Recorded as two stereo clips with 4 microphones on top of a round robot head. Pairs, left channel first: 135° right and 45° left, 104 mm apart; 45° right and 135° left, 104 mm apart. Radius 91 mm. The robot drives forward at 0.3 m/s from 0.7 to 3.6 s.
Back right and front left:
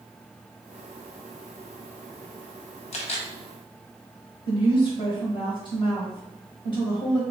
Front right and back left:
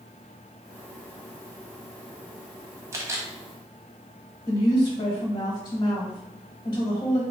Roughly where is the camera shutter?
Behind.